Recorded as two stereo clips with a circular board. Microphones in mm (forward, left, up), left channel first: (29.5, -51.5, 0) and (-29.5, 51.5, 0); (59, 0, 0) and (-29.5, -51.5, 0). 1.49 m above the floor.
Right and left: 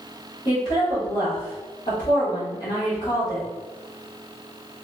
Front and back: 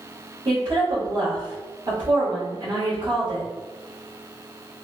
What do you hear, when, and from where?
0.5 s a woman speaking: 105° right, 1.6 m